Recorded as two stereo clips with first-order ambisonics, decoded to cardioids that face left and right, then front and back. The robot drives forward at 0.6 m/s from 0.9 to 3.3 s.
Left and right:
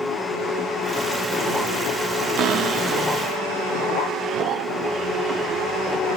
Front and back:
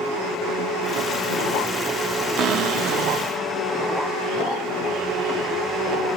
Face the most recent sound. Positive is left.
turn(degrees=-155)